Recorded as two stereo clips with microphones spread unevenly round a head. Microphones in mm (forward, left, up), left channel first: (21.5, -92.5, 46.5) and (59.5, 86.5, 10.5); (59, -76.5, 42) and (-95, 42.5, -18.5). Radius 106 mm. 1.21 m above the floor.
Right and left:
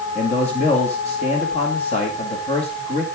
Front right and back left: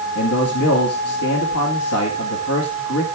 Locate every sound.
0.1 s a man speaking: 45° right, 2.5 m